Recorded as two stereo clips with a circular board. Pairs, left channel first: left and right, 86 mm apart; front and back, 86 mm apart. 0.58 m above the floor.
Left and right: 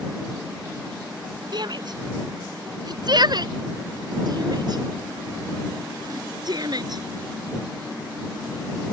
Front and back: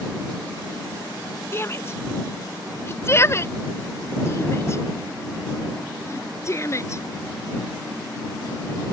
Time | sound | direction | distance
1.5 | a shout | 60° right | ?